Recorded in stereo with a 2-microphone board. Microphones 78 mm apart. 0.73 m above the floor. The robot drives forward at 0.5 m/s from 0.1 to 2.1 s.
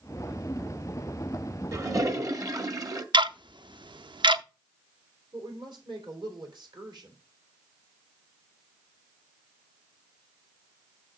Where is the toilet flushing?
40° right (ahead or behind), 1.2 m; by 3.0 s 50° right (ahead or behind), 1.0 m.